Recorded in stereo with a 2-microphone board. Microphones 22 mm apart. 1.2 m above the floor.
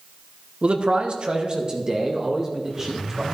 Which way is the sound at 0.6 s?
55° right (ahead or behind).